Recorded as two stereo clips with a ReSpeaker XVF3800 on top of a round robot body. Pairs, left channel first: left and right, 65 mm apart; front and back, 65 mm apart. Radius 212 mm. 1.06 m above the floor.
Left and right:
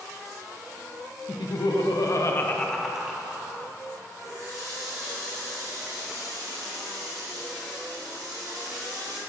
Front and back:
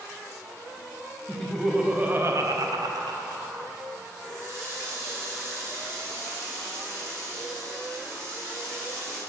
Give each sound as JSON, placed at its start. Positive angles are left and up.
{"t": 1.3, "sound": "laughter", "azimuth_deg": 85, "distance_m": 1.1}
{"t": 4.2, "sound": "a running tap", "azimuth_deg": -130, "distance_m": 1.3}